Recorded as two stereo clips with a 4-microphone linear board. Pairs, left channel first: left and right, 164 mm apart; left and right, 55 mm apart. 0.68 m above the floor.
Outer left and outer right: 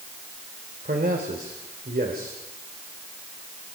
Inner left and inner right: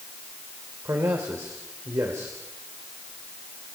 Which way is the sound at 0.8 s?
65° right (ahead or behind).